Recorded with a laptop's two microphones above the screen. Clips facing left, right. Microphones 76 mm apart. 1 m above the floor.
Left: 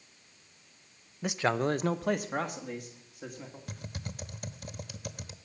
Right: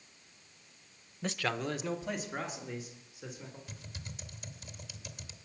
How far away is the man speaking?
About 0.8 m.